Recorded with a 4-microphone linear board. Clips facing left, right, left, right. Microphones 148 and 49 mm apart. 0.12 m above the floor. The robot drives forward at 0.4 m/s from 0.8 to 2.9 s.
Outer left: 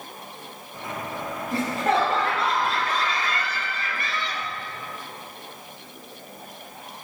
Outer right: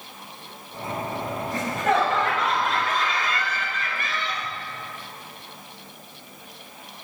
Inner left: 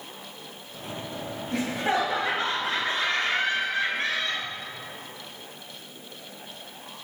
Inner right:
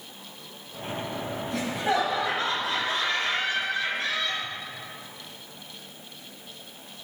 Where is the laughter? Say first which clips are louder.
Outer left 1 dB, inner left 1 dB; 35° left (ahead or behind), 2 m.